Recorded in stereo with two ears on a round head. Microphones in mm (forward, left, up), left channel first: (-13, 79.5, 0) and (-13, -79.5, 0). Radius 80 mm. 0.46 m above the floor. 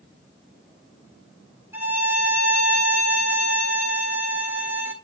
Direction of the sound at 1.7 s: 15° right (ahead or behind).